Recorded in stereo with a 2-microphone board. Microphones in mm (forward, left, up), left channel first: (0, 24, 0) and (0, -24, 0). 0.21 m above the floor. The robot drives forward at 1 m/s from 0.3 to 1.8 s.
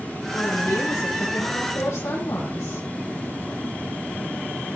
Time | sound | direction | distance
0.3 | a woman speaking | 80° left | 8.5 m